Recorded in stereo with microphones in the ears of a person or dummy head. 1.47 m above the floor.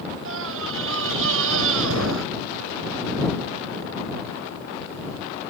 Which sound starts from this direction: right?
A scream, at 0.2 s.